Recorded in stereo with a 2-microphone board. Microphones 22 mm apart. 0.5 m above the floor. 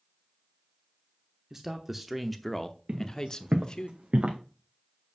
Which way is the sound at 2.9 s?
65° right (ahead or behind).